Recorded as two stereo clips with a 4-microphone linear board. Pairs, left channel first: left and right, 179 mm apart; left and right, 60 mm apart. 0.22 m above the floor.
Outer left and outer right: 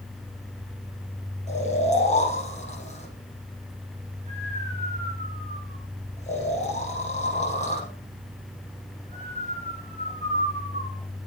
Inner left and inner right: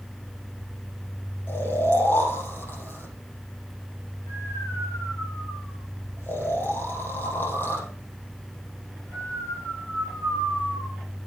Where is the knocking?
No knocking in this recording.